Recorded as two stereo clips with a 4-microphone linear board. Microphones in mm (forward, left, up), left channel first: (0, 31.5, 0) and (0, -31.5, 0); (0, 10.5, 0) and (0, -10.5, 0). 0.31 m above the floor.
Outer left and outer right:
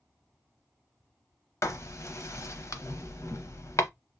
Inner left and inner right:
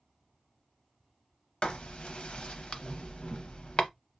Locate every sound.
1.6 s writing: 55° left (ahead or behind), 0.6 m